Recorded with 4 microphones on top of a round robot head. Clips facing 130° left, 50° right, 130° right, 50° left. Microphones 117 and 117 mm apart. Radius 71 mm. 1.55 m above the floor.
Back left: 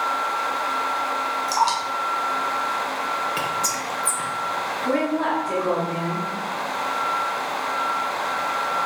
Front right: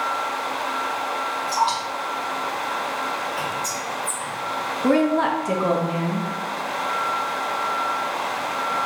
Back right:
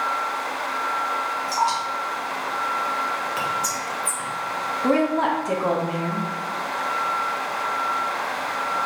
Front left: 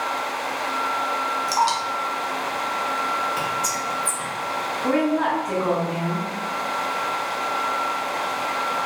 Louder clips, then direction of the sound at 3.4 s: Back left 1 dB, front left 1 dB; 140° left.